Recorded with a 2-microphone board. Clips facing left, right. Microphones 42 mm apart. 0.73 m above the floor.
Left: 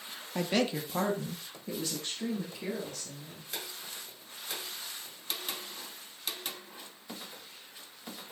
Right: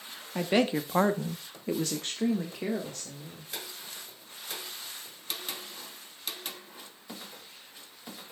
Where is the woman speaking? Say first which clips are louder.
Right 4 dB; 15° right (ahead or behind), 1.1 m; by 3.5 s 50° right (ahead or behind), 2.5 m.